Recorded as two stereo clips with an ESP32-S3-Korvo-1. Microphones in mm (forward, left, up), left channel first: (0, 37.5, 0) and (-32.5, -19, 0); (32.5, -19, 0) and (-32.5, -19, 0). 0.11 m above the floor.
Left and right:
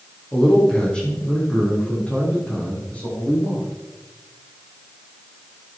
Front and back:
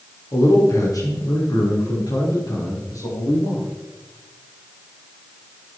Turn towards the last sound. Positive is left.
turn(degrees=-5)